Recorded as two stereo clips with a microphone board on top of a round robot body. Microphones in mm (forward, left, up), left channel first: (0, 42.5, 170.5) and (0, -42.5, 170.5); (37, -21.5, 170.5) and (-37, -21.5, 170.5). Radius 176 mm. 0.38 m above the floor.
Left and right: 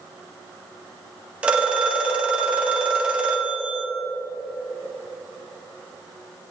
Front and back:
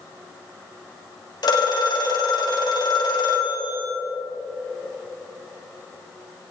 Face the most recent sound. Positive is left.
turn(degrees=-15)